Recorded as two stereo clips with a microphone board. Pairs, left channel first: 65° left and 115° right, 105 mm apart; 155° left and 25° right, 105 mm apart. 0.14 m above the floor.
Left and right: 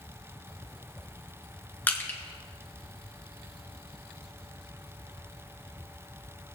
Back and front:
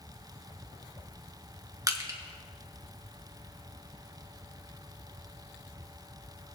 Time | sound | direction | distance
1.9 | crushing | 5° left | 1.6 m